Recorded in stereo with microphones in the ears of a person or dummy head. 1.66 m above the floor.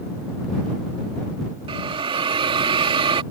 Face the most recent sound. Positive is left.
turn(degrees=-25)  # may be behind; listen again after turning